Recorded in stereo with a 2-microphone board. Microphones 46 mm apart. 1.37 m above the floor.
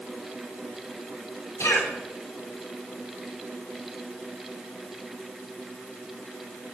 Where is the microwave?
I don't hear a microwave.